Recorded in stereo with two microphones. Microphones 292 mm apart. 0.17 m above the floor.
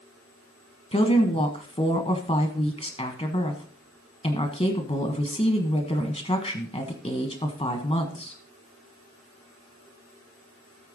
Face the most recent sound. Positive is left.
turn(degrees=20)  # may be behind; listen again after turning